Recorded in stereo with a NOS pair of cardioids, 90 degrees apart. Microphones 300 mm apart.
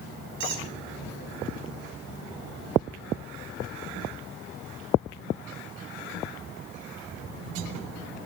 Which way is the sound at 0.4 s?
70° right.